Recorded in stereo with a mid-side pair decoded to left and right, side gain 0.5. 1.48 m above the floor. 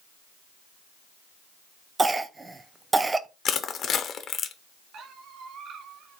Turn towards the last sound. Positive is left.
turn(degrees=-70)